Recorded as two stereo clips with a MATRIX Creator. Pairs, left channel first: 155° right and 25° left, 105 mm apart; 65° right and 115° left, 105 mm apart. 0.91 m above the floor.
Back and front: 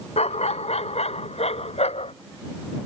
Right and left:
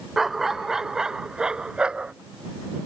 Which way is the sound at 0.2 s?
160° right.